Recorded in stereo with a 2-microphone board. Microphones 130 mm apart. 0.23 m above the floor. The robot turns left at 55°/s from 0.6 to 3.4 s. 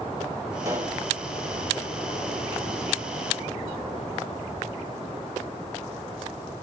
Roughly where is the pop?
Right.